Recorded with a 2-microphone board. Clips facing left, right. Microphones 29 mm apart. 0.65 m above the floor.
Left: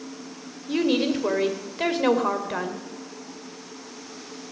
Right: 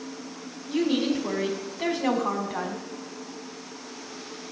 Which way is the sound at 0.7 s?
65° left (ahead or behind).